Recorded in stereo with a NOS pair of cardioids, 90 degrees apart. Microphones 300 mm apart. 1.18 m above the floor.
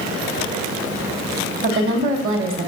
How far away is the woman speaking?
About 1.8 m.